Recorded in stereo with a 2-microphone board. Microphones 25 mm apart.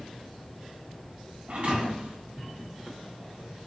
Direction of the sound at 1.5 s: 60° right (ahead or behind).